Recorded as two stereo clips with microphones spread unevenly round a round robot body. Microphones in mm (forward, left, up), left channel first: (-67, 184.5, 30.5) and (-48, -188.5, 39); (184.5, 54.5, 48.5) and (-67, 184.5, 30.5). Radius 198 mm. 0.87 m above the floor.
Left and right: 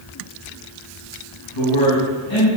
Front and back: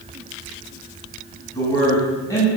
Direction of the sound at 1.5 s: 50° left.